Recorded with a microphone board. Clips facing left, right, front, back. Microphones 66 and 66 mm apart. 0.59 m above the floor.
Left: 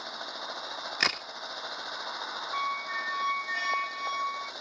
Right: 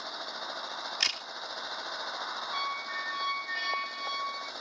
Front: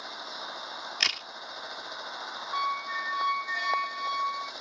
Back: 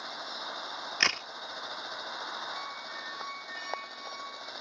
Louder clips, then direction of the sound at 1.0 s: Left 9 dB, back 4 dB; 120° left.